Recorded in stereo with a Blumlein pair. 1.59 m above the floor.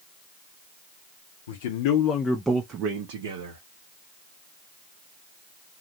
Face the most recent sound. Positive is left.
turn(degrees=-60)